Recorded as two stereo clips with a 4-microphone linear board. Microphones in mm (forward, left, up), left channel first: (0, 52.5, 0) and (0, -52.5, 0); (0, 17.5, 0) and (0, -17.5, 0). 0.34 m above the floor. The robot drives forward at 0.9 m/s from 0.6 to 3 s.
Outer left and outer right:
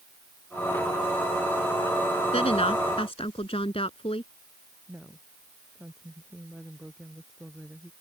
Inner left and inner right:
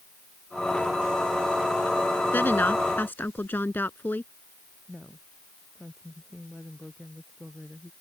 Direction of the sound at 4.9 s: 5° right (ahead or behind).